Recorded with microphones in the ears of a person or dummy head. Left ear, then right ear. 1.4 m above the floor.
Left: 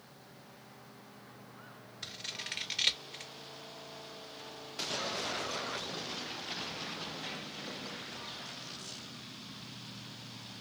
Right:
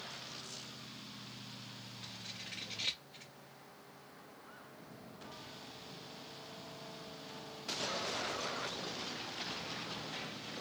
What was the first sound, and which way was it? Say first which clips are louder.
Scissors: left 8 dB; 50° left (ahead or behind).